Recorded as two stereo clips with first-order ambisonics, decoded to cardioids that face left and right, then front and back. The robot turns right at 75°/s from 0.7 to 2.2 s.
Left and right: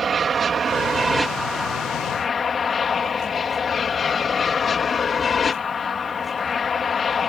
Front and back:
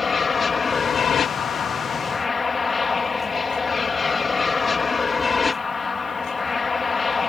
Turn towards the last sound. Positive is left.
turn(degrees=60)